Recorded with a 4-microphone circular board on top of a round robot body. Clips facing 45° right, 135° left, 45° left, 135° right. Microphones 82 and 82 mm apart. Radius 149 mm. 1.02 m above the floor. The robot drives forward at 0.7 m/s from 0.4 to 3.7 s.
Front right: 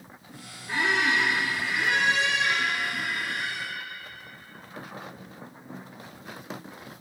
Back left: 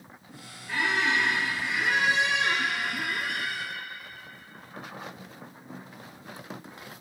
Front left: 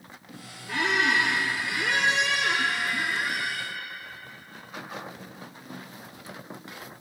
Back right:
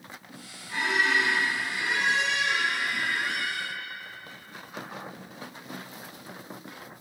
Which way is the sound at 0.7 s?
25° left.